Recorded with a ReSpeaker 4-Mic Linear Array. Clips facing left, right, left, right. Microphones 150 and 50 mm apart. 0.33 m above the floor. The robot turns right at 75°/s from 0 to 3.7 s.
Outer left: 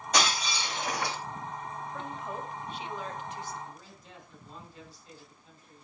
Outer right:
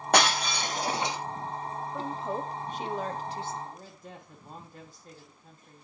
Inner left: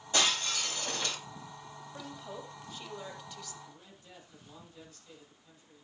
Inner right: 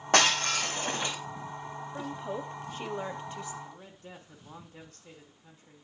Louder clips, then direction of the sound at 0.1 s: Outer right 5 dB, inner right 6 dB; 95° right.